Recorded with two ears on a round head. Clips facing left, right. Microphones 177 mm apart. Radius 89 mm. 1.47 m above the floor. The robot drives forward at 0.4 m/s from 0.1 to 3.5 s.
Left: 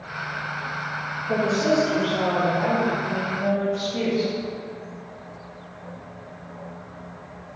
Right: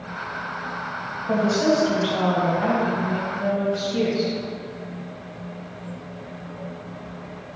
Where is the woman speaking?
65° right (ahead or behind), 0.8 m; by 4.3 s 35° right (ahead or behind), 1.2 m.